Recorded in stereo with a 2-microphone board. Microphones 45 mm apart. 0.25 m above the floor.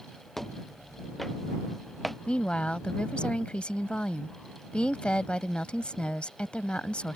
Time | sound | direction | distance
0.4 | footsteps | 10° left (ahead or behind) | ?
2.3 | a woman speaking | 20° left (ahead or behind) | ?